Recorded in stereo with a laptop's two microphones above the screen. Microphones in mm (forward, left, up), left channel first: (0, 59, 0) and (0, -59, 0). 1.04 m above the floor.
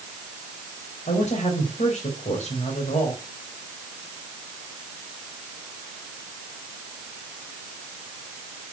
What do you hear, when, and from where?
1.1 s a woman speaking: 85° left, 4 m